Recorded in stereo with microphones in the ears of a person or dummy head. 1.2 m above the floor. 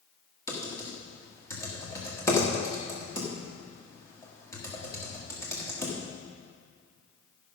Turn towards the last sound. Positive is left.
turn(degrees=20)  # may be behind; listen again after turning